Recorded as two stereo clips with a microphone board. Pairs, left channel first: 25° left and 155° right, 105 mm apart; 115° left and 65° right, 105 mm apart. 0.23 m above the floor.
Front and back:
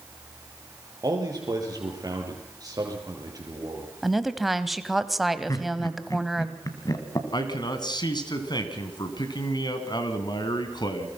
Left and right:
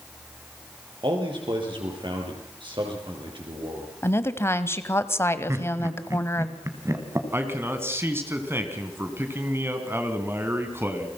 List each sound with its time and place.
1.0 s a man speaking: 105° right, 5.5 m
4.0 s a woman speaking: 115° left, 1.1 m
5.5 s laughter: 15° right, 2 m
7.3 s a man speaking: 5° right, 2.5 m